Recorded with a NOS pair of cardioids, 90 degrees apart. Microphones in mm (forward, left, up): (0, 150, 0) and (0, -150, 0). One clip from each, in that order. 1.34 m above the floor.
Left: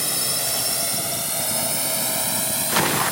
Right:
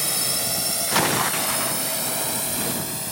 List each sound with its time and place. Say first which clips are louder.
0.0 s a drone: even; straight ahead; by 3.1 s 25° left